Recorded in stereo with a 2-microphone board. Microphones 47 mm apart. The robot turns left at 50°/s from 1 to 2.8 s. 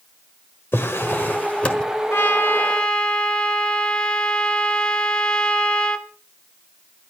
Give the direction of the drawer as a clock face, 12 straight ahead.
10 o'clock.